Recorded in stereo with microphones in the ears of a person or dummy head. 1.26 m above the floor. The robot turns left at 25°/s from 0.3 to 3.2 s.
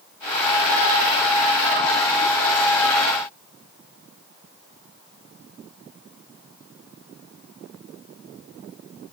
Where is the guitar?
No guitar in this recording.